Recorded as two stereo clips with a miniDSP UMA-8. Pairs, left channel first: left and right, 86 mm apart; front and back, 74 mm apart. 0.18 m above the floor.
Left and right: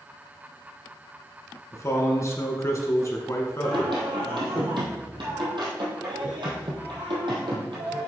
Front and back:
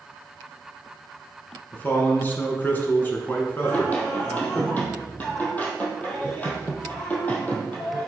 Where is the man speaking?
55° left, 1.9 m.